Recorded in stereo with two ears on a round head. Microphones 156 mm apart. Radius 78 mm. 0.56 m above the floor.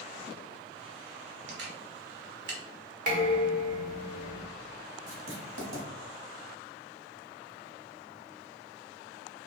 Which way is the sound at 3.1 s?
50° right (ahead or behind).